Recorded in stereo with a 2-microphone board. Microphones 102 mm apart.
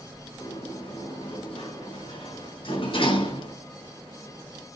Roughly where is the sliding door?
Left.